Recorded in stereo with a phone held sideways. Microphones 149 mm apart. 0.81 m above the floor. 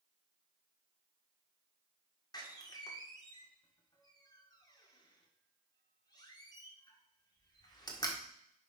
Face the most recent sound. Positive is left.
turn(degrees=25)  # may be behind; listen again after turning